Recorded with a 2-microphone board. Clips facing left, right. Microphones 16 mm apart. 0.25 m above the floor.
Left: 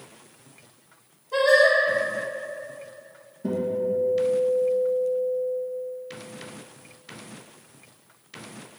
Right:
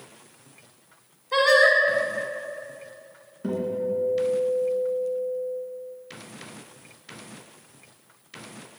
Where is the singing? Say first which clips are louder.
Even; 65° right (ahead or behind), 0.9 m.